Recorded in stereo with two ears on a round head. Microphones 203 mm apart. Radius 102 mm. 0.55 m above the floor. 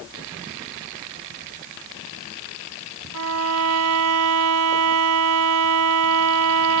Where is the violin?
80° right.